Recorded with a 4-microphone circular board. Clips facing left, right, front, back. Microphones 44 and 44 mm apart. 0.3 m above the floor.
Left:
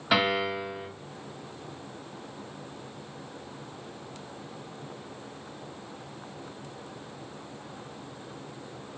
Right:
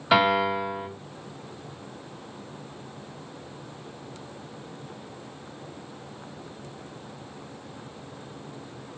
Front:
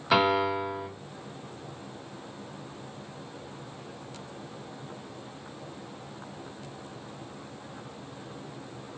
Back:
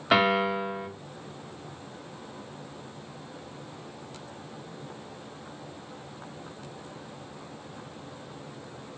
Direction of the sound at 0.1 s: 165° right.